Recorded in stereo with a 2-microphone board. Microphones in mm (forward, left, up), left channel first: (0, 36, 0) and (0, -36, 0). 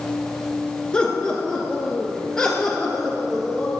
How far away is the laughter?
About 1.2 m.